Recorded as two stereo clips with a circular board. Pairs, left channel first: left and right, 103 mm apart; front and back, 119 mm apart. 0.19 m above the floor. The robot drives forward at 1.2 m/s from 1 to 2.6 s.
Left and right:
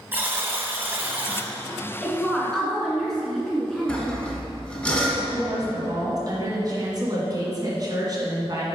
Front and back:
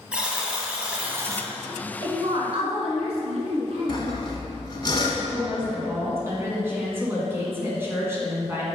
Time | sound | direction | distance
0.1 | a buzzer | 115° right | 1.1 m
2.0 | a woman speaking | 170° left | 1.3 m
3.9 | sawing | 20° left | 1.6 m
5.3 | a woman speaking | 120° right | 2 m